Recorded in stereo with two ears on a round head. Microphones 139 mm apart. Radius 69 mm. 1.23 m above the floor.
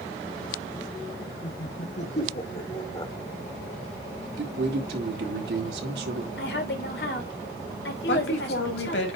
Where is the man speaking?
75° right (ahead or behind), 3.5 m.